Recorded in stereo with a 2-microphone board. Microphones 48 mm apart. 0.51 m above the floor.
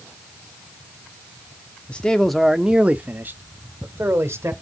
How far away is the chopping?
No chopping in this recording.